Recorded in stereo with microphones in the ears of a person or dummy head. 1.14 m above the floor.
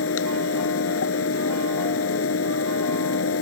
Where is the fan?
80° left.